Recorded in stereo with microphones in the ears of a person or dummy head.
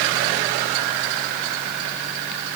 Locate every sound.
Only background noise.